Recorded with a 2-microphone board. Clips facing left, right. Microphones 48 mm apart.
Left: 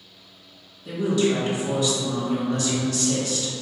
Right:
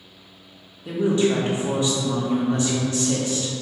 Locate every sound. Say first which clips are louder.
0.8 s a woman speaking: right 2 dB; 30° right (ahead or behind), 0.9 m